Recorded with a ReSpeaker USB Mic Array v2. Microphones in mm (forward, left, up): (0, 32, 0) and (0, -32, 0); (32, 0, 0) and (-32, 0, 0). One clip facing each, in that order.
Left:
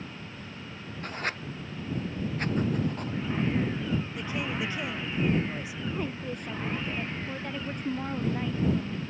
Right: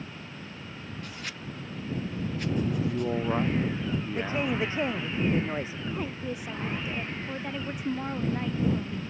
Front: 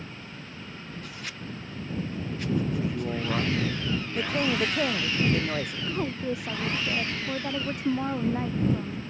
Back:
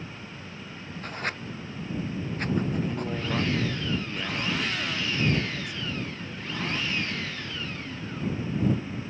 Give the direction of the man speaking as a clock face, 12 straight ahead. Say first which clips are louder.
Right 3 dB, even; 3 o'clock.